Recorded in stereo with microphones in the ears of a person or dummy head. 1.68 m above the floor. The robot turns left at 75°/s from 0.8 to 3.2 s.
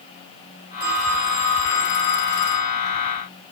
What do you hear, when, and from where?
0.8 s a phone ringing: 160° right, 2.0 m; by 2.7 s 55° left, 2.0 m